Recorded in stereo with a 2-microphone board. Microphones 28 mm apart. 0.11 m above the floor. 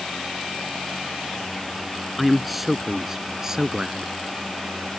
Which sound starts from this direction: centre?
A man speaking, at 2.2 s.